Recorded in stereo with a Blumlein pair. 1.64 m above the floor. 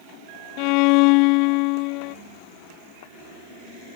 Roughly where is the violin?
Ahead left.